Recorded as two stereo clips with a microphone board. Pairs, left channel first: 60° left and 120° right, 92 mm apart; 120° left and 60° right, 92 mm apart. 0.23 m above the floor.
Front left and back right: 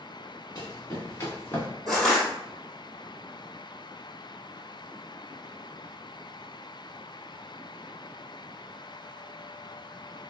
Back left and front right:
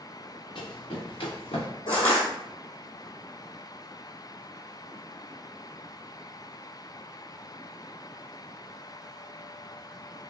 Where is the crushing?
145° left, 1.3 m.